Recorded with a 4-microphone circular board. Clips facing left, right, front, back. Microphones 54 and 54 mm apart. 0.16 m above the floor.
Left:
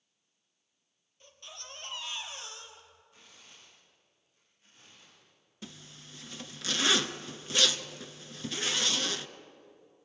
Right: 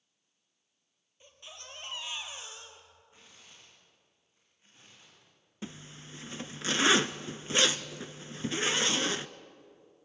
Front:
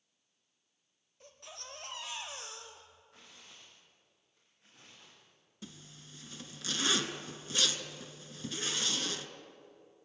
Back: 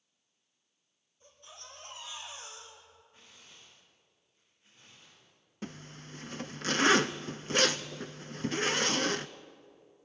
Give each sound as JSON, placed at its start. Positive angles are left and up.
{"t": 1.2, "sound": "a baby crying", "azimuth_deg": -15, "distance_m": 3.0}
{"t": 3.1, "sound": "tearing paper", "azimuth_deg": -25, "distance_m": 7.0}
{"t": 5.6, "sound": "a zipper", "azimuth_deg": -150, "distance_m": 0.6}